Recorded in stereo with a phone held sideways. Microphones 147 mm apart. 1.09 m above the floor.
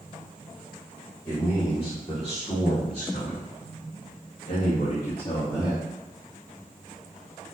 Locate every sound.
1.2 s a man speaking: 10° left (ahead or behind), 1.3 m; by 5.8 s 35° left (ahead or behind), 1.6 m